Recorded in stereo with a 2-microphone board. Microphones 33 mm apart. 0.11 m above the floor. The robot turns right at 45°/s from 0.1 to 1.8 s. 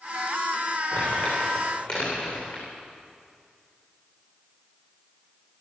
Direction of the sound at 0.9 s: 80° left.